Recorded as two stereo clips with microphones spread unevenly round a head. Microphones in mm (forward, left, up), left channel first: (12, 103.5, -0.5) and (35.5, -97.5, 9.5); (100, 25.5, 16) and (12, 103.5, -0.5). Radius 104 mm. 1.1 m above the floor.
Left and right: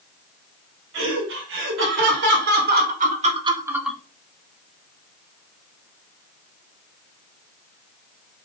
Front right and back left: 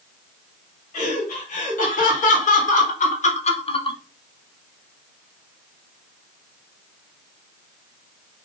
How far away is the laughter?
About 4.5 m.